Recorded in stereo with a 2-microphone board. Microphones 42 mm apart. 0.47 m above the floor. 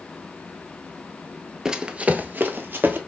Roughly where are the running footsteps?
Centre.